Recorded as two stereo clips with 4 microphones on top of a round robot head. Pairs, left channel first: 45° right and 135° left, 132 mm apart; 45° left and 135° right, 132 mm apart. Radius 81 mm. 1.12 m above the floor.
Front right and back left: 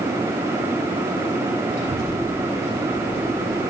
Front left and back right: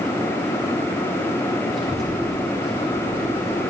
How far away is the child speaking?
About 5.5 m.